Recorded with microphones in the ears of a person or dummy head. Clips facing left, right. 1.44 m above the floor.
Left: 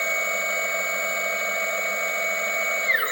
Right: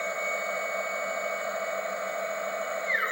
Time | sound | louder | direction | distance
0.0 | a machine running | left 2 dB | 40° left (ahead or behind) | 1.1 m